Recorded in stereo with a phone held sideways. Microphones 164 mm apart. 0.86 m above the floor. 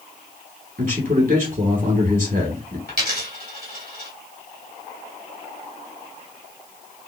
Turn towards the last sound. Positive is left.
turn(degrees=-75)  # may be behind; listen again after turning